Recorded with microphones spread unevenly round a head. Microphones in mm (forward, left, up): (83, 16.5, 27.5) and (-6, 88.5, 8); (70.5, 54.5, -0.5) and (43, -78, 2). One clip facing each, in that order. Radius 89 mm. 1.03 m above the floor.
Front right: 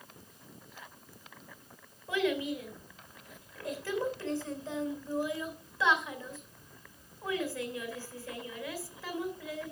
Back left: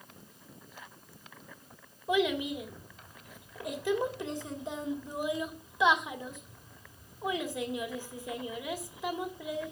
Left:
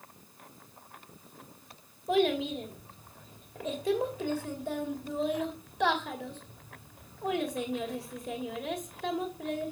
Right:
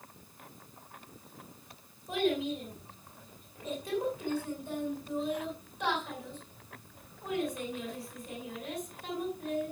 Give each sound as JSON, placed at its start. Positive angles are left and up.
{"t": 2.1, "sound": "a child speaking", "azimuth_deg": 65, "distance_m": 3.0}